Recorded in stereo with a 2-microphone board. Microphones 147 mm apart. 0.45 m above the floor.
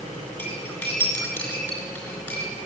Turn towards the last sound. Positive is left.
turn(degrees=10)  # may be behind; listen again after turning